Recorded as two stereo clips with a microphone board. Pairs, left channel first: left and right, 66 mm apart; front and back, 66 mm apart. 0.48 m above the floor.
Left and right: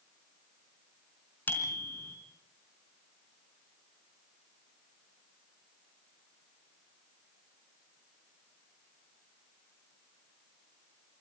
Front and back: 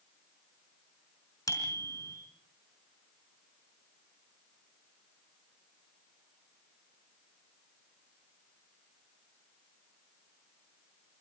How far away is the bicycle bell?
About 4 m.